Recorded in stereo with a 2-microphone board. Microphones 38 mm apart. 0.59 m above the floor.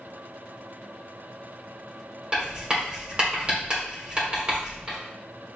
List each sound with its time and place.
2.3 s writing: 25° right (ahead or behind), 1.4 m